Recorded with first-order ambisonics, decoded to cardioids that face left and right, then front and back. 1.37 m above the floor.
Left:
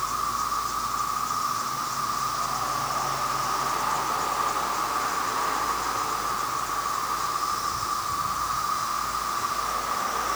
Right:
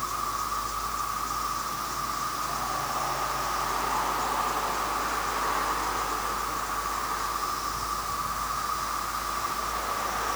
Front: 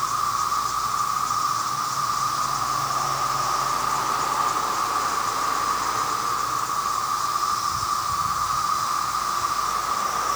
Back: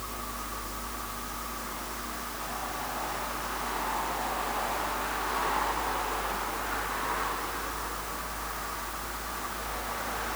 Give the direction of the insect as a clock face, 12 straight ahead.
12 o'clock.